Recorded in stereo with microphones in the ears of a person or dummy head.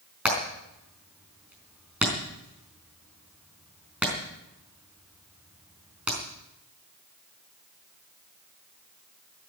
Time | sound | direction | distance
0.2 | hammering | 5° right (ahead or behind) | 4.5 m